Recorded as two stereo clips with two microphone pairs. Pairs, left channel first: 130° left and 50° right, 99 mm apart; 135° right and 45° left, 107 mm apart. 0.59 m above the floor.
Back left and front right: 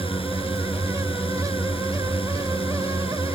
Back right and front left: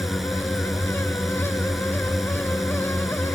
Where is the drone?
135° left.